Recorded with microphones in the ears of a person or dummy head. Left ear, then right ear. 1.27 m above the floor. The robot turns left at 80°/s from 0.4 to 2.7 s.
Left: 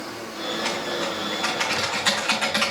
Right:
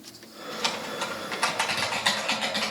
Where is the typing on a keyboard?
40° right, 4 m; by 2.7 s 145° left, 4 m.